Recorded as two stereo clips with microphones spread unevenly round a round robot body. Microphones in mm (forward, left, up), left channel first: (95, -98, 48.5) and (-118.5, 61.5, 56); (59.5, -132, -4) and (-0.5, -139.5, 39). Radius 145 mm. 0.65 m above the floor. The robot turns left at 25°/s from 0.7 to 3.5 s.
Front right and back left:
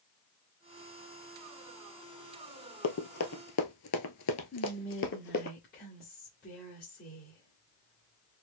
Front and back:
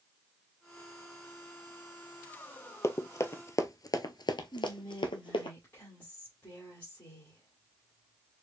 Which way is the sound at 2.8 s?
60° right.